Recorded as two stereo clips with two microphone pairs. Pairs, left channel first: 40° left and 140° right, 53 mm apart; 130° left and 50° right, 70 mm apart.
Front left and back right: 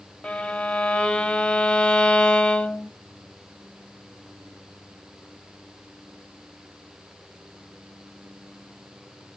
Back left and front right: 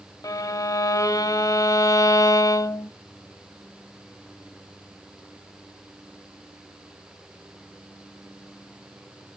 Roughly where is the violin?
Left.